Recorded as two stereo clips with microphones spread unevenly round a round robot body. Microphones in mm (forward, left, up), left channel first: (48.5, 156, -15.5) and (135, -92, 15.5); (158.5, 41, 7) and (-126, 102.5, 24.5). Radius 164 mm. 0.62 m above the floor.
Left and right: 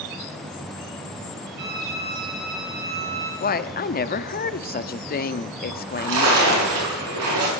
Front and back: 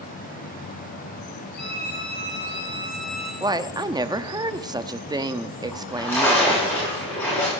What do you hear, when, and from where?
1.6 s a violin: 100° right, 6.5 m
3.4 s a woman speaking: 95° left, 0.8 m
5.7 s a splash: 95° right, 7 m